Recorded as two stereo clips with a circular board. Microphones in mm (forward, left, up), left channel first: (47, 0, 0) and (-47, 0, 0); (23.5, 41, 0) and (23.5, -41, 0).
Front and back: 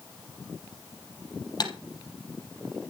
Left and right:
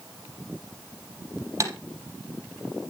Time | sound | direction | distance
1.6 | typing on a keyboard | 45° right | 4.5 m